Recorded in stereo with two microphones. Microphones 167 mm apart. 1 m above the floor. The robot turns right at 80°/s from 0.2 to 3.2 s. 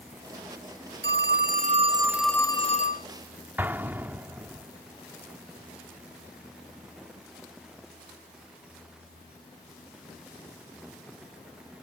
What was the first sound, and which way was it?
A phone ringing, 95° right.